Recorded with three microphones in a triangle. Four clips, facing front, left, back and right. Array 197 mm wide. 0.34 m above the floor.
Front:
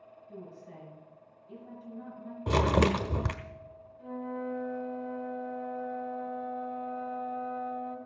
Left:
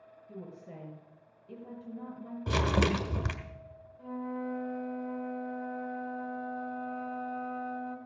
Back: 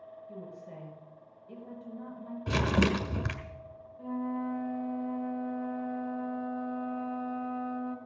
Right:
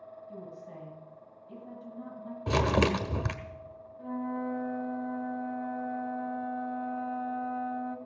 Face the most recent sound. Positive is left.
turn(degrees=-140)